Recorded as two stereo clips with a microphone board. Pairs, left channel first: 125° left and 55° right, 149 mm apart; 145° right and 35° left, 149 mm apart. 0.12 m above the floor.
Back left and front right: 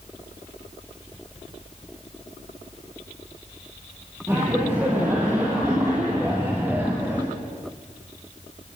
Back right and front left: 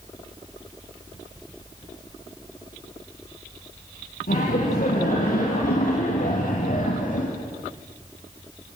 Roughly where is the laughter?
Behind right.